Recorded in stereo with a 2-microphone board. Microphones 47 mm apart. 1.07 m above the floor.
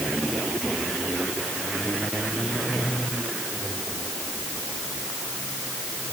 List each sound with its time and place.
Only background noise.